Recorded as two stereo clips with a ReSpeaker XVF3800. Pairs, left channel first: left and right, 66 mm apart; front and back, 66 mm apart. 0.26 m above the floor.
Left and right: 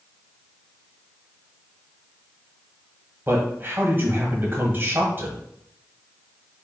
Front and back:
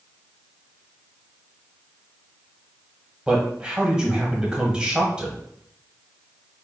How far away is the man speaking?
About 1.1 m.